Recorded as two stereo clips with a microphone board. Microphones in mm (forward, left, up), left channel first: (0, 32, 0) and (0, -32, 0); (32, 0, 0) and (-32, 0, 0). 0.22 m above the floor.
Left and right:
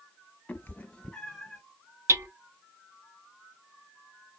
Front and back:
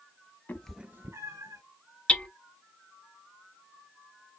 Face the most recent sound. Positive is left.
turn(degrees=-70)